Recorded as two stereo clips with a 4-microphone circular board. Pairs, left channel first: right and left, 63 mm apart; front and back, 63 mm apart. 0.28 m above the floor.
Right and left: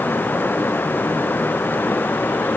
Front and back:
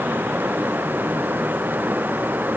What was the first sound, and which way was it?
Only background noise.